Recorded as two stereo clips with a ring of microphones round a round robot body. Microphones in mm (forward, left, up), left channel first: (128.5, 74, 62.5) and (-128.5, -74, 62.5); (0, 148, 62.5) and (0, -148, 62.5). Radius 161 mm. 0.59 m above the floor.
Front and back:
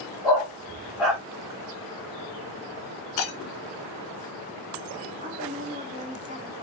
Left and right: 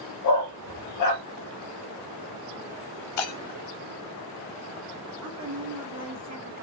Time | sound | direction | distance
0.2 | a dog barking | 120° left | 4 m
3.2 | breaking glass | 60° left | 2.5 m
5.2 | a woman speaking | 90° right | 1.9 m